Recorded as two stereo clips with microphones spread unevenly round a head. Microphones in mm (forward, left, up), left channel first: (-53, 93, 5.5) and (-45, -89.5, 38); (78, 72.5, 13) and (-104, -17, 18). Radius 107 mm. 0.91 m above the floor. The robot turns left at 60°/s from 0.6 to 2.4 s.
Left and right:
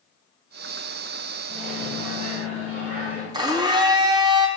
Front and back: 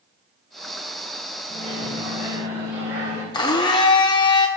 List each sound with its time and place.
1.5 s a microwave: 25° right, 4.5 m; by 3.2 s 80° right, 4.5 m
3.3 s a blender: 40° right, 0.6 m